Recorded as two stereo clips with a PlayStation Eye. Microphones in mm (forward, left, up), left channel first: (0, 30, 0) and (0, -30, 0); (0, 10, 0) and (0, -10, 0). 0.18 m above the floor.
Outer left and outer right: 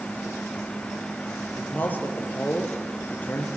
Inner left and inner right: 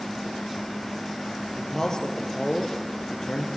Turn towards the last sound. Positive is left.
turn(degrees=30)  # may be behind; listen again after turning